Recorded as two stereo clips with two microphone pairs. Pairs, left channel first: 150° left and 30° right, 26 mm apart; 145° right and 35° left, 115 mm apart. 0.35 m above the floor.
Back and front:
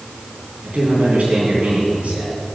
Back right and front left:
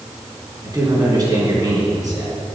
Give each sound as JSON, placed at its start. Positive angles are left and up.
{"t": 0.6, "sound": "a man speaking", "azimuth_deg": -20, "distance_m": 3.0}